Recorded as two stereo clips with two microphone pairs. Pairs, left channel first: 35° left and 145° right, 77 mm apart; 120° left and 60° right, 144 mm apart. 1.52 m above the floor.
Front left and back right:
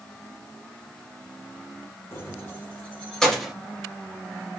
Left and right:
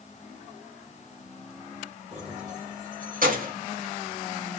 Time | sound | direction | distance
2.1 | keys jangling | 25° right | 3.5 m